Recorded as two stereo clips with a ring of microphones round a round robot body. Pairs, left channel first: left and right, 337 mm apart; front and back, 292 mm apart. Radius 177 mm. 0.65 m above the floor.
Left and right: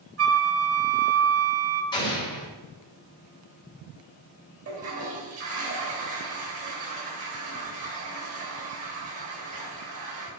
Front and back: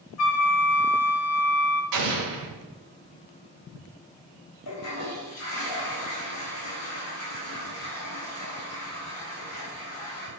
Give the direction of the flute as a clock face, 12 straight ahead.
1 o'clock.